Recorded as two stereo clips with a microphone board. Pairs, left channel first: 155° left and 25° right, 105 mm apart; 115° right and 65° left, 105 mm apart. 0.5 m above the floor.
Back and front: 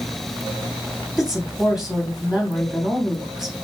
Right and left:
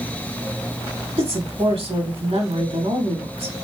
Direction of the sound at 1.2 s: 65° left.